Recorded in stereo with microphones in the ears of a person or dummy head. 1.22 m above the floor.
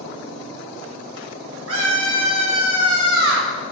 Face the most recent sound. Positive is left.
turn(degrees=-85)